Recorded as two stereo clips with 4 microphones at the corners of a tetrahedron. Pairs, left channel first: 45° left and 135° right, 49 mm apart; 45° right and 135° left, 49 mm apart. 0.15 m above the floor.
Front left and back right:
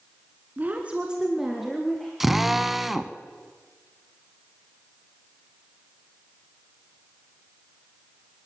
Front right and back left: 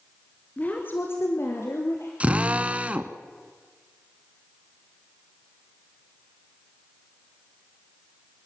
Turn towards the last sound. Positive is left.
turn(degrees=145)